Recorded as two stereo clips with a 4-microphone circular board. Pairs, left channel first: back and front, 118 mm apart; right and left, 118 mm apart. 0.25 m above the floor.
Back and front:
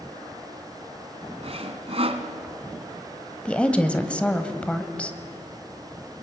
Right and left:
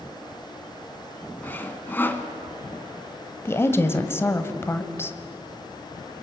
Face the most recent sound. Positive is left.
turn(degrees=-115)